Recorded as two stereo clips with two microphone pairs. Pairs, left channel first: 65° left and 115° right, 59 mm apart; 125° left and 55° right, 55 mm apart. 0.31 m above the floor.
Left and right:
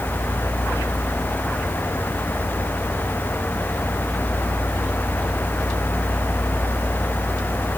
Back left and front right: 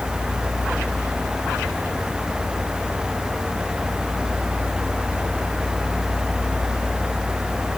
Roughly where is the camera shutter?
I don't hear a camera shutter.